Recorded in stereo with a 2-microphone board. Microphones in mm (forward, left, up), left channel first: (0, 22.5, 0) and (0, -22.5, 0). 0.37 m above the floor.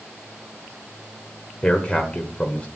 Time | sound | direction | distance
1.6 | a man speaking | 25° left (ahead or behind) | 1.4 m